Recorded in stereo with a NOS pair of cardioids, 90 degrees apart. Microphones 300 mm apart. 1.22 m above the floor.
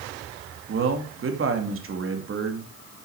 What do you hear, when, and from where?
0.7 s a man speaking: 45° right, 2.5 m